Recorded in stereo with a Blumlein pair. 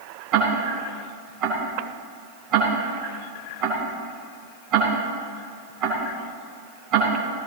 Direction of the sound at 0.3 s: 35° right.